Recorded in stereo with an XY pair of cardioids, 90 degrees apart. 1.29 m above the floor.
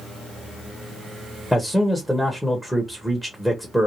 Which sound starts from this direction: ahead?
A man speaking, at 1.5 s.